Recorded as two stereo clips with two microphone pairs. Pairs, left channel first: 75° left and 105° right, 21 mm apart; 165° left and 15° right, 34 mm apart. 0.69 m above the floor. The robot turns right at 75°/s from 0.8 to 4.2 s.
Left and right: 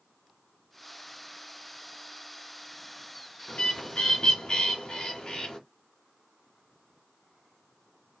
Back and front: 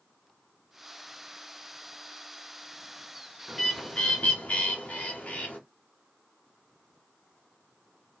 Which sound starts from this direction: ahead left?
A bird, at 3.5 s.